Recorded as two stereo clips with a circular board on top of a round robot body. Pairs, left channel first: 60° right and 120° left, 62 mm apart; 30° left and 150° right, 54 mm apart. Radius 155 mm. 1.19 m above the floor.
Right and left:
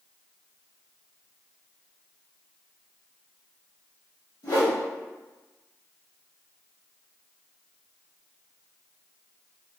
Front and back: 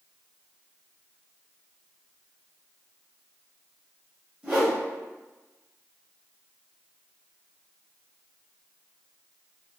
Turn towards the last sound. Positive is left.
turn(degrees=-90)